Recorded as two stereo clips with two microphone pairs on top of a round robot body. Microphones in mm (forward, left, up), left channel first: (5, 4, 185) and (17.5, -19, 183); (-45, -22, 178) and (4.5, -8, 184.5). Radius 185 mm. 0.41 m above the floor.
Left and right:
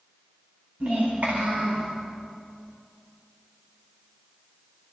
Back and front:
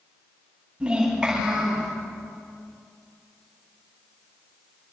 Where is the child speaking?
60° right, 4 m; by 1.9 s 70° right, 5 m.